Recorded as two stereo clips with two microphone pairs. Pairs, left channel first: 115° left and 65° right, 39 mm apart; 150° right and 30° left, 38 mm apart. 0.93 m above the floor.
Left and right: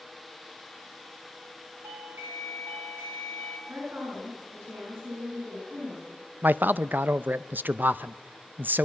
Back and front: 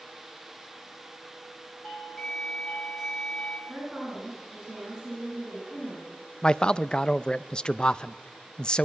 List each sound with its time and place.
1.8 s a doorbell: 70° right, 3.5 m
3.7 s a woman speaking: 45° right, 9 m
6.4 s a man speaking: 85° right, 0.5 m